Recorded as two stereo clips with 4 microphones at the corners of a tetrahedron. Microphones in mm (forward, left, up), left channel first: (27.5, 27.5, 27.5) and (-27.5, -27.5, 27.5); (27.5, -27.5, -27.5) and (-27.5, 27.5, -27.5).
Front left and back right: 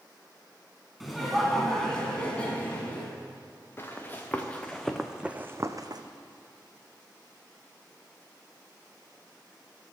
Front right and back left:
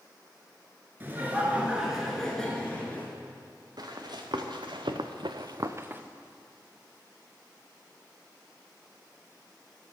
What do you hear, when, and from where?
1.0 s laughter: 140° left, 1.6 m; by 3.1 s straight ahead, 1.7 m
3.8 s running footsteps: 105° left, 1.6 m; by 6.0 s 160° right, 0.8 m